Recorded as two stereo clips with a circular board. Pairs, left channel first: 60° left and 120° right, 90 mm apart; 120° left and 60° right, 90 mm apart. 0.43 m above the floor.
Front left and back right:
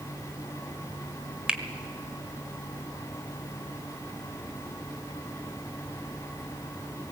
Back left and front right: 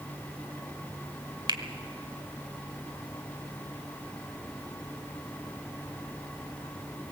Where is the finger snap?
40° right, 1.2 m.